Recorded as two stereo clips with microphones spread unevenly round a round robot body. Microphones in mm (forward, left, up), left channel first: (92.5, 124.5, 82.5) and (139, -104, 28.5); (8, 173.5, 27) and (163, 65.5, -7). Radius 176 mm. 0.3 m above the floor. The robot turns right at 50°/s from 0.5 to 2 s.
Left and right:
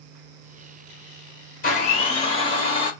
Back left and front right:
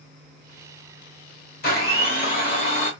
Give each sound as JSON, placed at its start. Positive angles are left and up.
{"t": 1.6, "sound": "a blender", "azimuth_deg": 155, "distance_m": 0.9}